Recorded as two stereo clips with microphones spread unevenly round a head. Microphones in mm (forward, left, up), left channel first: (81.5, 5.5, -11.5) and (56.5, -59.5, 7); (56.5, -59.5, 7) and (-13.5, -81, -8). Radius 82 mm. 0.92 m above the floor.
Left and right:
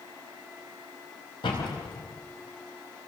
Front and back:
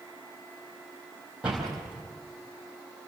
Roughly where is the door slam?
Left.